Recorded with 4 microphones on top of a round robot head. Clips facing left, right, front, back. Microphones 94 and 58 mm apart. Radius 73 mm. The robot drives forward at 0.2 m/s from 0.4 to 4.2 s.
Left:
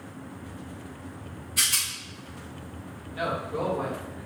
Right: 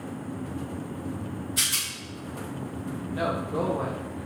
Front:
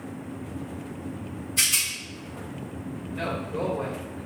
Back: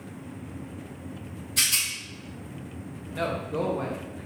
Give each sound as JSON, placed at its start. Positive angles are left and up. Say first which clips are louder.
{"t": 1.6, "sound": "a rattle", "louder": "even, even", "azimuth_deg": -160, "distance_m": 4.0}
{"t": 3.1, "sound": "a man speaking", "louder": "right 1 dB, back 2 dB", "azimuth_deg": -150, "distance_m": 1.6}